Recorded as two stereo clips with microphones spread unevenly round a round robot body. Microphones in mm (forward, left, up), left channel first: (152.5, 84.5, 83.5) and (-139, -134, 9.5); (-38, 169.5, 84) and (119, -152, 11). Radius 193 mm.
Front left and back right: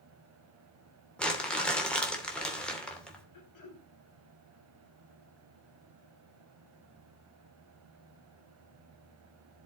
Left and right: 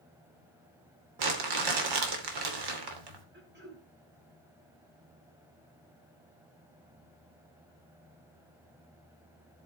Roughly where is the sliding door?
I don't hear a sliding door.